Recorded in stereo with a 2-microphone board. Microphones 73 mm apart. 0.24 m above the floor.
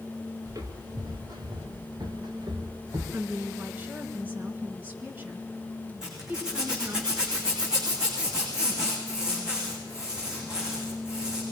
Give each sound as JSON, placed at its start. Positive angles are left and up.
{"t": 0.5, "sound": "footsteps", "side_deg": -55, "distance_m": 3.0}
{"t": 3.1, "sound": "a woman speaking", "side_deg": -25, "distance_m": 3.5}
{"t": 6.0, "sound": "a zipper", "side_deg": -10, "distance_m": 9.0}